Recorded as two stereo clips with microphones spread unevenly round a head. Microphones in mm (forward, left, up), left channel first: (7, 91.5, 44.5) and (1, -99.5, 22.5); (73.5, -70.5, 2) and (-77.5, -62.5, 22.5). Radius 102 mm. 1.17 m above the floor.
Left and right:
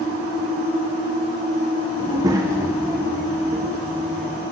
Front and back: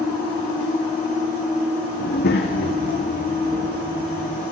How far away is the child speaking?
About 1.3 m.